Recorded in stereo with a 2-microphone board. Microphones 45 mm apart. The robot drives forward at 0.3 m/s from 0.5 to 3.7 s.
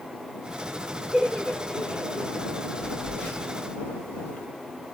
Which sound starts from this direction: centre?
Laughter, at 1.1 s.